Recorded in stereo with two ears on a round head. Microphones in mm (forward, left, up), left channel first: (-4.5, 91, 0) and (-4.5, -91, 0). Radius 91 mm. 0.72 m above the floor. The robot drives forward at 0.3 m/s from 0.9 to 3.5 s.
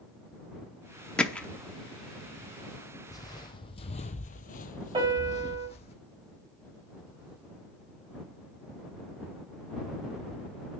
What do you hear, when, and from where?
1.2 s hammering: 5° left (ahead or behind), 0.7 m
3.1 s footsteps: 15° left (ahead or behind), 1.3 m; by 5.9 s 25° left (ahead or behind), 1.5 m
4.9 s a piano: 25° right (ahead or behind), 4 m